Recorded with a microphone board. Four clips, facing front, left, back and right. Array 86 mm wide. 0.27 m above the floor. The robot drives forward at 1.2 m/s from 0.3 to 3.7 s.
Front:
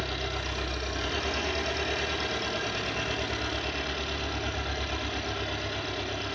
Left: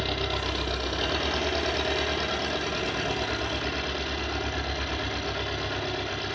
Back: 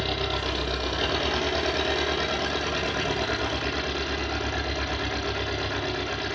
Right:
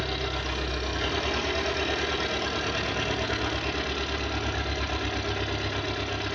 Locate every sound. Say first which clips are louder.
0.0 s an engine running: left 2 dB, back 5 dB; 150° left, 5.5 m; by 6.3 s 160° left, 9 m